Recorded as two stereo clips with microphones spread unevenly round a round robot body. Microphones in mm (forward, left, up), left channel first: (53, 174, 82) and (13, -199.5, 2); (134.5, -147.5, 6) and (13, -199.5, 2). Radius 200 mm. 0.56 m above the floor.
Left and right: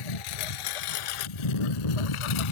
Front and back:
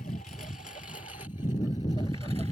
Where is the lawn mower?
90° left; by 2.5 s 100° left.